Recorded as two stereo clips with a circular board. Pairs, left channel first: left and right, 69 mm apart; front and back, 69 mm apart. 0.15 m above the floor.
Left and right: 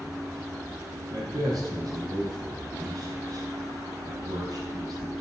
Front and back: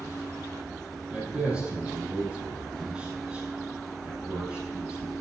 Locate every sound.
1.1 s a man speaking: 110° right, 6 m